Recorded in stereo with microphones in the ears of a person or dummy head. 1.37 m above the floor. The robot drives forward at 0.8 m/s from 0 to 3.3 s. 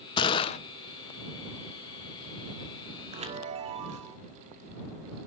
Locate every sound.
0.2 s a gunshot: 25° left (ahead or behind), 1.0 m; by 0.6 s 35° left (ahead or behind), 0.7 m
3.1 s a chime: 40° right (ahead or behind), 1.7 m; by 4.2 s 35° right (ahead or behind), 1.8 m